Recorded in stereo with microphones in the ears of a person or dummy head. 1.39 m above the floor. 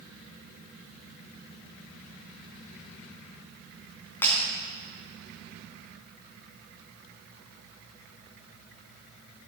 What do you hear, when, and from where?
4.2 s breaking glass: 10° left (ahead or behind), 3 m